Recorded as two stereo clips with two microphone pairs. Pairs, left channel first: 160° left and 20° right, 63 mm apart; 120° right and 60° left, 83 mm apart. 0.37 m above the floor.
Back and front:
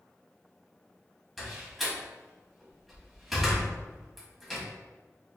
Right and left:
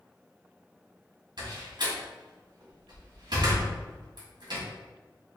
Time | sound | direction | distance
1.4 | a door slam | 70° left | 1.7 m